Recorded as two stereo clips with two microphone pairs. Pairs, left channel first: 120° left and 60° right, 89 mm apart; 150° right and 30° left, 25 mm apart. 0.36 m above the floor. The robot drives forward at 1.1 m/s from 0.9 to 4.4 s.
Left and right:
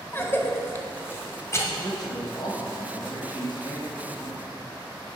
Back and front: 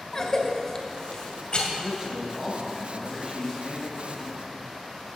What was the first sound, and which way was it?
A cough, 165° left.